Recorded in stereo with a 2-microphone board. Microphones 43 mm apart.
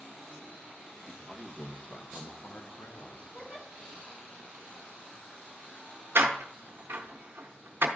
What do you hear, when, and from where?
1.1 s a man speaking: 5° left (ahead or behind), 1.4 m; by 3.3 s 70° left (ahead or behind), 1.3 m
3.3 s a giggle: 40° left (ahead or behind), 2 m
6.2 s a door slam: 65° right (ahead or behind), 0.8 m